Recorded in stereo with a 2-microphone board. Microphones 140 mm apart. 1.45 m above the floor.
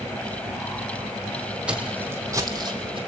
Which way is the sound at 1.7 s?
10° right (ahead or behind).